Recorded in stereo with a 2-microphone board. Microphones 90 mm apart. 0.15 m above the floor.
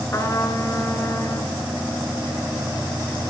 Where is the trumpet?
40° left (ahead or behind), 1.6 m.